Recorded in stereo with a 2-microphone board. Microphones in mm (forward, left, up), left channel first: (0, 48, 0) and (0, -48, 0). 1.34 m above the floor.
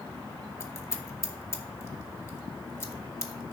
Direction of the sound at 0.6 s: 30° left (ahead or behind).